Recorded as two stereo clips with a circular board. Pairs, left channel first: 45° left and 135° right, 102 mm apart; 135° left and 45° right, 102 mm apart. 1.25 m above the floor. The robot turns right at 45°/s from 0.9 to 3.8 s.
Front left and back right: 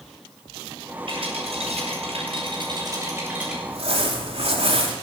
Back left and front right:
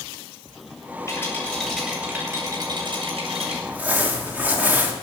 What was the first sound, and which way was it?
A rattle, 160° right.